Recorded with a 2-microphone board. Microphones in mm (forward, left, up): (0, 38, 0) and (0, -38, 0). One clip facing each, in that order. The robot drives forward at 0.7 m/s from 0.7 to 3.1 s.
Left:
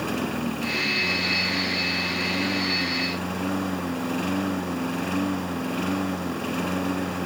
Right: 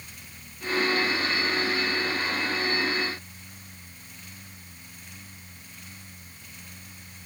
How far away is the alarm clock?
No alarm clock in this recording.